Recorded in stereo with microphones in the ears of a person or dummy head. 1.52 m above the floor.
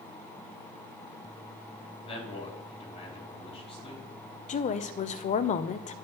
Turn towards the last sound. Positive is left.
turn(degrees=40)  # may be behind; listen again after turning